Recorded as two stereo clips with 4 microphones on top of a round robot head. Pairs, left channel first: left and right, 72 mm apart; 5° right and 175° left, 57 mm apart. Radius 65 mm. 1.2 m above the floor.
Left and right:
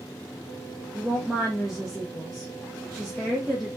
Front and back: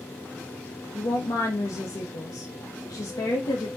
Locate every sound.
0.9 s a woman speaking: 5° right, 0.7 m